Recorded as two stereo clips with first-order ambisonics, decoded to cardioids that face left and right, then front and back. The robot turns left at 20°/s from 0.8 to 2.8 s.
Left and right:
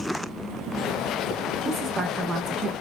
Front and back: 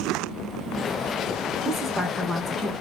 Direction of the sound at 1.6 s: 75° right.